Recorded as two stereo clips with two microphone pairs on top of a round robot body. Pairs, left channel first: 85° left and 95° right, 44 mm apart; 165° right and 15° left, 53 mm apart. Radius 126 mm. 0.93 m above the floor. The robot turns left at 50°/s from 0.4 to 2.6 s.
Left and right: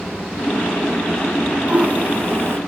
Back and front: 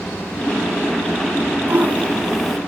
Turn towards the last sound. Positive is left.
turn(degrees=-80)